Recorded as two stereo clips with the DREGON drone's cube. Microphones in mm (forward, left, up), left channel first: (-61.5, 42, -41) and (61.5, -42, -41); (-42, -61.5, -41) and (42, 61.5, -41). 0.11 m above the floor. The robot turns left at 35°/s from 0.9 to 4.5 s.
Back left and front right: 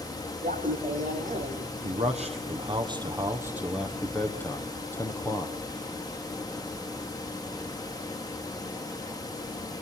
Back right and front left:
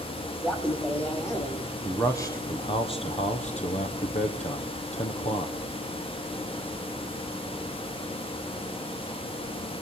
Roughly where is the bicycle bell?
No bicycle bell in this recording.